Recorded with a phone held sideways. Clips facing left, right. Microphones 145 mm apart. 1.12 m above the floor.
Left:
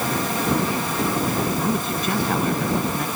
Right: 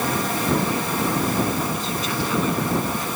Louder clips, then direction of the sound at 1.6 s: Left 3 dB; 60° left (ahead or behind).